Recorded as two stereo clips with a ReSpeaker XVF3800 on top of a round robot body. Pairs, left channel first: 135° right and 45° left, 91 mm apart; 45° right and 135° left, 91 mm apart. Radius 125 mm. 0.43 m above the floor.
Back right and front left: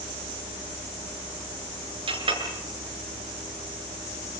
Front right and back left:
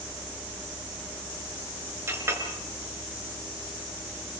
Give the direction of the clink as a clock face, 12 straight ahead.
10 o'clock.